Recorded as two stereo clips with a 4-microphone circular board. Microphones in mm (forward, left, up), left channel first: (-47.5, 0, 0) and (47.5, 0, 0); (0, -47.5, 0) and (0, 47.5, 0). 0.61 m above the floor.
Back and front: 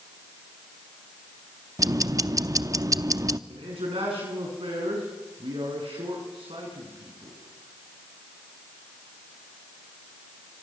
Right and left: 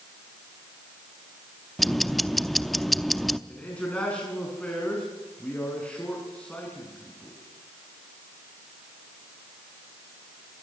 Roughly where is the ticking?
Ahead.